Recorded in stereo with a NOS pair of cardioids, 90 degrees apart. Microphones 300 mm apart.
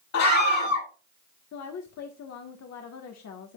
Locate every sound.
0.1 s a scream: 65° left, 4.5 m
1.5 s a woman speaking: 60° left, 1.6 m